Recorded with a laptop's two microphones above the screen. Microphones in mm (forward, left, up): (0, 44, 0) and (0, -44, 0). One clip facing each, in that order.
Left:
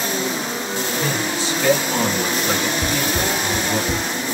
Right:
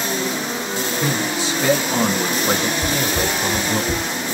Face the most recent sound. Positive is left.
turn(degrees=20)  # may be behind; listen again after turning